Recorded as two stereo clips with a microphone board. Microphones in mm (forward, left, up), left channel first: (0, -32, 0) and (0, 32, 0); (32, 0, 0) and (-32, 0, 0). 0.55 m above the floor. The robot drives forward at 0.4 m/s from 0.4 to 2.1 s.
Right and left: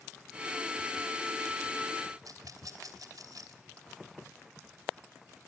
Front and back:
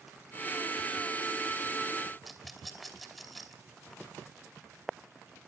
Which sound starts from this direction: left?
A rattle, at 2.2 s.